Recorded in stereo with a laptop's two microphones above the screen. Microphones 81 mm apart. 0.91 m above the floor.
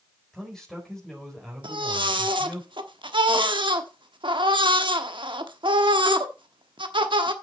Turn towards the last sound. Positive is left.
turn(degrees=-80)